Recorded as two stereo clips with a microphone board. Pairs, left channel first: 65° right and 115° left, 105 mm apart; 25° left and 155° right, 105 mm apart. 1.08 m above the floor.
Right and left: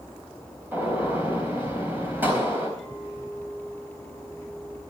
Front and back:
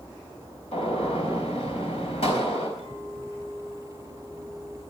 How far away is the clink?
About 8 m.